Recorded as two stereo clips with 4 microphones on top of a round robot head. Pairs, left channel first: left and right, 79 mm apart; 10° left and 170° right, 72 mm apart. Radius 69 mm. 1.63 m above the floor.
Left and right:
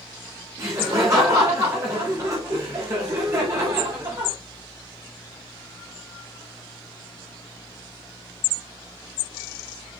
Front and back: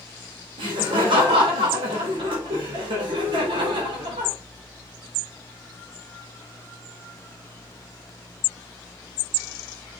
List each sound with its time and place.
0.6 s laughter: 150° right, 3 m